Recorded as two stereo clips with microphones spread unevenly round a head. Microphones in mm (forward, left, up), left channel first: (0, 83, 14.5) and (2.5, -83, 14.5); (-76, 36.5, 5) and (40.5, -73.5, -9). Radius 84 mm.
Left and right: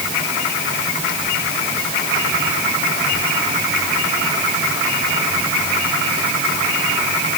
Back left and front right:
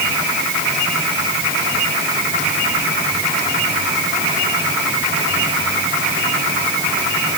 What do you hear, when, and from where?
Only background noise.